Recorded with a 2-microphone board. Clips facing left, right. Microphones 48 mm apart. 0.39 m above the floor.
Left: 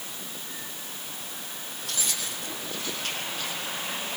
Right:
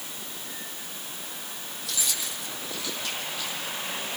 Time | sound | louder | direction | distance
1.8 | keys jangling | even | 40° left (ahead or behind) | 9 m